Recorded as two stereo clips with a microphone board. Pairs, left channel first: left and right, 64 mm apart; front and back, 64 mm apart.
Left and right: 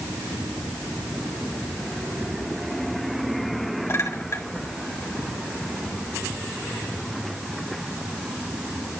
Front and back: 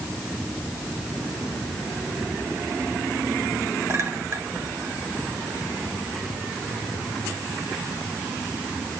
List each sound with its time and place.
3.9 s a clink: 130° left, 4.5 m